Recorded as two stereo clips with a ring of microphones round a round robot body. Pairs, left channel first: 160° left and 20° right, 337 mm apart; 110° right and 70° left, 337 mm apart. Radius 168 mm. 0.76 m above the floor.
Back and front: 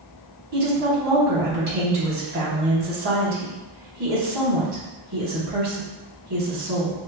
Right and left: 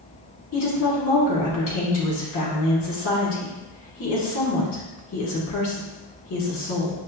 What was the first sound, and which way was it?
A woman speaking, 60° right.